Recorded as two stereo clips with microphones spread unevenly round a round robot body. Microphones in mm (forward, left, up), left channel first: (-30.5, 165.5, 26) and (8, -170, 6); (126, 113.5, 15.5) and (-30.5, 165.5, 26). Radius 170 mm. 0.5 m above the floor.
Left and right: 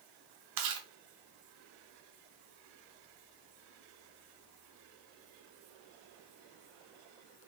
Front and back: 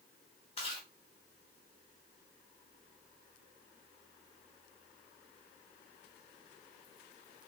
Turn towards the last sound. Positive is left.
turn(degrees=-75)